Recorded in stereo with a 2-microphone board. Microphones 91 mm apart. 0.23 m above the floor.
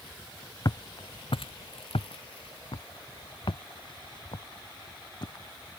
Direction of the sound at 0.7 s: 45° left (ahead or behind).